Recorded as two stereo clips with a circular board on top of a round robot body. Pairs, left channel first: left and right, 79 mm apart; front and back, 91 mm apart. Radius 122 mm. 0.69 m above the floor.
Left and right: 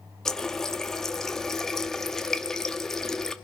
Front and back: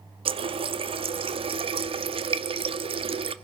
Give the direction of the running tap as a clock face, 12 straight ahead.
6 o'clock.